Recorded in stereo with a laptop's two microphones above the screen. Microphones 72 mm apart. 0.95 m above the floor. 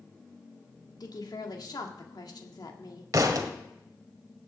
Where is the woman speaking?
70° left (ahead or behind), 1.7 m.